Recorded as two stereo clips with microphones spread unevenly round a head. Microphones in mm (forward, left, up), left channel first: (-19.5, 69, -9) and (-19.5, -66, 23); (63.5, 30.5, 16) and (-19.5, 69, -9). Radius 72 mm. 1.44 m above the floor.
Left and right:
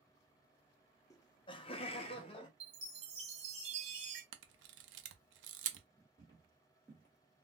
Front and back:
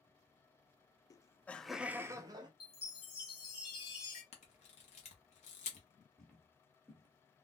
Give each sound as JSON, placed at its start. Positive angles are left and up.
{"t": 1.1, "sound": "laughter", "azimuth_deg": 35, "distance_m": 0.6}
{"t": 2.6, "sound": "a chime", "azimuth_deg": -60, "distance_m": 1.1}
{"t": 4.3, "sound": "a camera shutter", "azimuth_deg": -75, "distance_m": 0.6}
{"t": 6.2, "sound": "footsteps", "azimuth_deg": 30, "distance_m": 1.5}